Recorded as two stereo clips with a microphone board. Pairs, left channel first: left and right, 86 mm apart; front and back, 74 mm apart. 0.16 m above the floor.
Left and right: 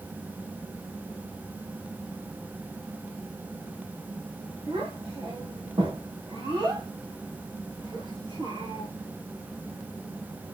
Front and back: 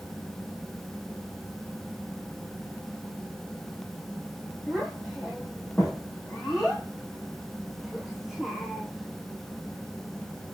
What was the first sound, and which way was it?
A child speaking, 95° right.